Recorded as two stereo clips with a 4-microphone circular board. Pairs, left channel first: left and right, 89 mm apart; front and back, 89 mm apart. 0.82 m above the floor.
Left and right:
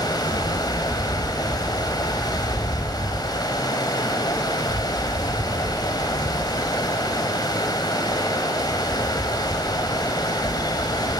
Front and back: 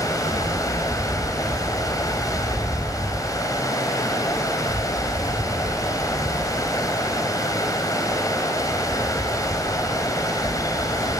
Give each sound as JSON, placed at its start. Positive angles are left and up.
{"t": 0.0, "sound": "running water", "azimuth_deg": 50, "distance_m": 2.5}